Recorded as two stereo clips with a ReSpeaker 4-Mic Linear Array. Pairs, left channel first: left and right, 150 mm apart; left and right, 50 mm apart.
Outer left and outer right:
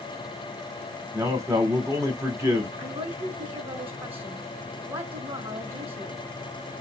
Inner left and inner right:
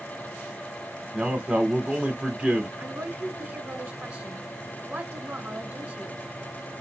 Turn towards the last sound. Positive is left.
turn(degrees=-40)  # may be behind; listen again after turning